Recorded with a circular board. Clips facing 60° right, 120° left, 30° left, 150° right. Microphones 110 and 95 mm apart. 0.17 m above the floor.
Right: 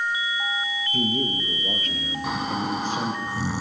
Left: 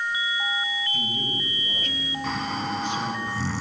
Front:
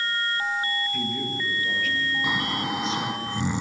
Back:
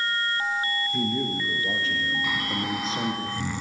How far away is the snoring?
About 0.8 m.